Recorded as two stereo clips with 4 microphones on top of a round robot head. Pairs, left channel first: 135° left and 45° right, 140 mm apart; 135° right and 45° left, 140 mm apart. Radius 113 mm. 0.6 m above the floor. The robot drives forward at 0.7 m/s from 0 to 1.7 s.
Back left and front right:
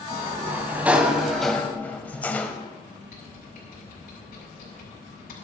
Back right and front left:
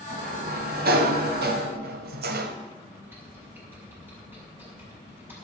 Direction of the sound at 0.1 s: 25° left.